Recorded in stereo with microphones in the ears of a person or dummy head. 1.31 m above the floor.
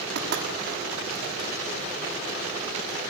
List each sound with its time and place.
0.1 s knocking: 65° right (ahead or behind), 7 m